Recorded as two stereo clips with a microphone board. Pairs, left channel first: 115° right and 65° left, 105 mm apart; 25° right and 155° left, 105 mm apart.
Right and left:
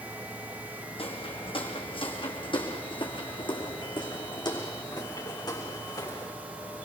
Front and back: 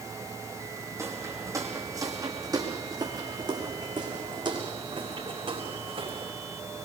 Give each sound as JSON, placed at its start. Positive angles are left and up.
{"t": 1.0, "sound": "footsteps", "azimuth_deg": -140, "distance_m": 5.5}